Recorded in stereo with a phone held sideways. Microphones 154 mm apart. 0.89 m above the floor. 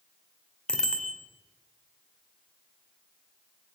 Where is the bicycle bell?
5° left (ahead or behind), 2 m.